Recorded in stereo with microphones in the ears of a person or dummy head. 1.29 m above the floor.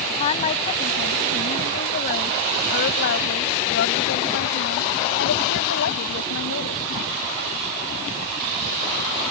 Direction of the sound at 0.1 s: 35° left (ahead or behind).